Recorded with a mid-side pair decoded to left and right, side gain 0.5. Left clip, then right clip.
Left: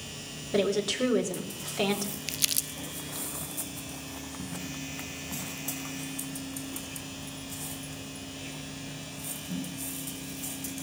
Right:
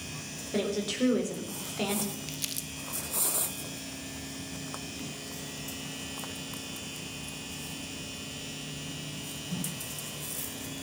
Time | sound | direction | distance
0.5 | a woman speaking | 30° left | 4 m
2.3 | crumpling | 50° left | 0.6 m